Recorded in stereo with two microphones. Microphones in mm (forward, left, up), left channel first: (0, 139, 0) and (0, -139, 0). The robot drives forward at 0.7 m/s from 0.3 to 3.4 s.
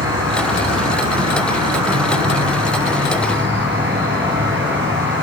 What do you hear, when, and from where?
0.0 s an insect: 55° right (ahead or behind), 1.5 m; by 5.2 s 40° right (ahead or behind), 1.9 m